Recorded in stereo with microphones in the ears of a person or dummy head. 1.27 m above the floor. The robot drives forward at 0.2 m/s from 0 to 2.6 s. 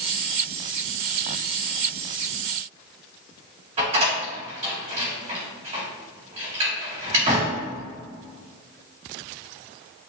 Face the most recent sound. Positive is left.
turn(degrees=-30)  # may be behind; listen again after turning